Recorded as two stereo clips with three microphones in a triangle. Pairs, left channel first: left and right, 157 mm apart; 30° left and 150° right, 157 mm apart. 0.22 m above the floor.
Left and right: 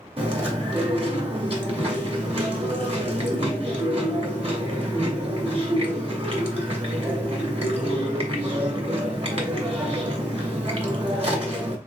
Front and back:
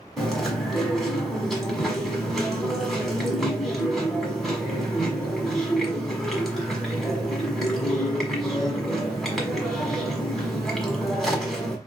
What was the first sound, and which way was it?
Chewing, 55° right.